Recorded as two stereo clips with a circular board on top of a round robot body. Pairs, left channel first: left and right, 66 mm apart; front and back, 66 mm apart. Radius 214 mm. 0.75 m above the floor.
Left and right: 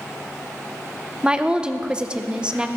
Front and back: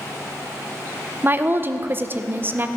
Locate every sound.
1.2 s a woman speaking: 155° right, 1.1 m